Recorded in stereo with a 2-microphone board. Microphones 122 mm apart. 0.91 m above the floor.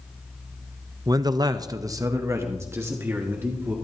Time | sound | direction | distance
1.1 | a man speaking | 30° right (ahead or behind) | 0.5 m